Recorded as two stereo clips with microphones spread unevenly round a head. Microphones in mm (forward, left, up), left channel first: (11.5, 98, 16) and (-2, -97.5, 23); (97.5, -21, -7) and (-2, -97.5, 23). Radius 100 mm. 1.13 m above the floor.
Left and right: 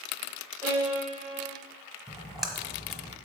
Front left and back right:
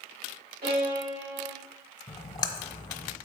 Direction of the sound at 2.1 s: 10° right.